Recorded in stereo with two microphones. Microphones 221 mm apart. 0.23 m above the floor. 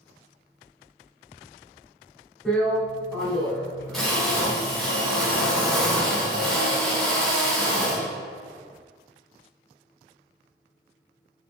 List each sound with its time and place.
2.5 s a drill: centre (ahead or behind), 1.0 m